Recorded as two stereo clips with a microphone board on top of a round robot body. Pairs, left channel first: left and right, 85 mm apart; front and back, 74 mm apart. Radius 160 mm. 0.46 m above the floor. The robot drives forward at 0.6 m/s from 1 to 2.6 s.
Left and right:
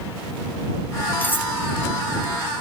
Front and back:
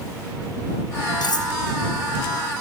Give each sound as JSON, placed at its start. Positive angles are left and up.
{"t": 1.2, "sound": "cutlery clinking", "azimuth_deg": 25, "distance_m": 1.7}